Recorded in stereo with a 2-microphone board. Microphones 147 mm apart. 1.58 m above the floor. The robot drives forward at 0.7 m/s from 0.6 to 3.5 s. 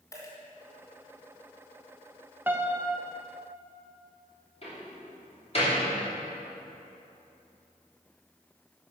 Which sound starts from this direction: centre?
A piano, at 2.5 s.